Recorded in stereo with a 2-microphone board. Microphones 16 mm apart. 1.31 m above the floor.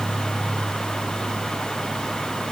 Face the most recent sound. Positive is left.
No sound to turn to.